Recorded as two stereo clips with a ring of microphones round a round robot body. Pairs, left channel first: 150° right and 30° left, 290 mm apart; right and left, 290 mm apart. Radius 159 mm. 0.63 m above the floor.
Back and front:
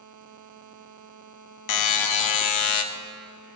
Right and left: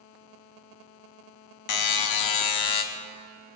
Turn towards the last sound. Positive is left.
turn(degrees=-120)